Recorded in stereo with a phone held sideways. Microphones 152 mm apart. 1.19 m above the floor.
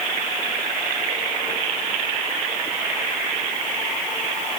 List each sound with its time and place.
Only background noise.